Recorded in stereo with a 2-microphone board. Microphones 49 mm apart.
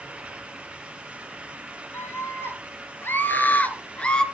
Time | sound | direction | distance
1.9 | a scream | 55° left (ahead or behind) | 3 m